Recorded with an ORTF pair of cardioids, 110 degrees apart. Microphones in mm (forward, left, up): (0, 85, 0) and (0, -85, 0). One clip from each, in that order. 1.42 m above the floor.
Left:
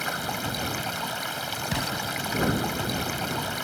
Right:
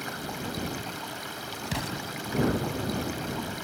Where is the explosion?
10° left.